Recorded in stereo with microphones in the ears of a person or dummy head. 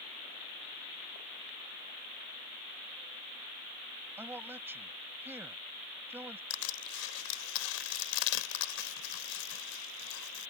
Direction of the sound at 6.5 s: 75° left (ahead or behind).